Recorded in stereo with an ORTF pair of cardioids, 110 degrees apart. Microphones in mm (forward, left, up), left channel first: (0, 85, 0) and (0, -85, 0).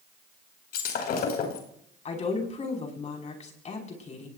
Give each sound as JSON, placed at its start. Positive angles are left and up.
{"t": 0.7, "sound": "breaking glass", "azimuth_deg": 70, "distance_m": 5.0}
{"t": 2.0, "sound": "a woman speaking", "azimuth_deg": 40, "distance_m": 5.5}